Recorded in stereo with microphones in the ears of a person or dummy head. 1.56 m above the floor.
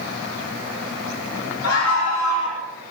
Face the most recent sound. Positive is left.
turn(degrees=70)  # may be behind; listen again after turning